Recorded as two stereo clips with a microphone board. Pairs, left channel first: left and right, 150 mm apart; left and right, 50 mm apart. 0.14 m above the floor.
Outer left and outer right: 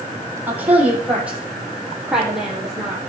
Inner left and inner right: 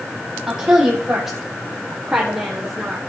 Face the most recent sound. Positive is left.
turn(degrees=0)  # may be behind; listen again after turning